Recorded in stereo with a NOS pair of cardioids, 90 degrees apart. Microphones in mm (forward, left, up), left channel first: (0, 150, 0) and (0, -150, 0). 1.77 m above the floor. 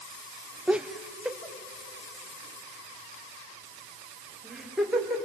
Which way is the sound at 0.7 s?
5° right.